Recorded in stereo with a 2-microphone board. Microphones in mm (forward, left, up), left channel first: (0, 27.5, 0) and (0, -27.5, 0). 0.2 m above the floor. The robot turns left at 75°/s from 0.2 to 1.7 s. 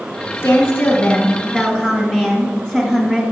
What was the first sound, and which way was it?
A woman speaking, 95° left.